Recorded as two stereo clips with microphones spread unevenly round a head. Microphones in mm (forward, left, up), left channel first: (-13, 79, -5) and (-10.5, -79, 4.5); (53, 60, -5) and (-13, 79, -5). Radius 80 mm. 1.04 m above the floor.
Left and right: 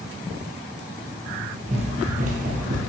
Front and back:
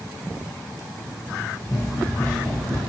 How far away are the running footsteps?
About 1.5 m.